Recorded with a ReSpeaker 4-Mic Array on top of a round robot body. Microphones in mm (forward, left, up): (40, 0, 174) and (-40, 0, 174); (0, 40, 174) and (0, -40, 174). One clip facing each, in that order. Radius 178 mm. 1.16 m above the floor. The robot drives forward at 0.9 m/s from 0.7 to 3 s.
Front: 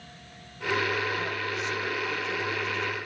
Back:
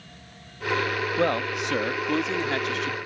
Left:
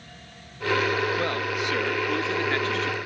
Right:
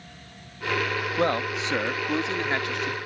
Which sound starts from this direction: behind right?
A man speaking, at 1.2 s.